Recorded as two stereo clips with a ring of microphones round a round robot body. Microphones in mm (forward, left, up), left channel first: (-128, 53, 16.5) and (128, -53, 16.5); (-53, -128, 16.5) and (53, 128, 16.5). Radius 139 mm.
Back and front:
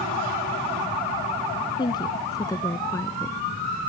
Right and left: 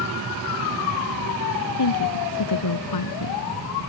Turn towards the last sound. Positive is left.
turn(degrees=-120)